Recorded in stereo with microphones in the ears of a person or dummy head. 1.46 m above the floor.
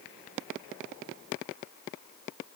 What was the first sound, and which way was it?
Only background noise.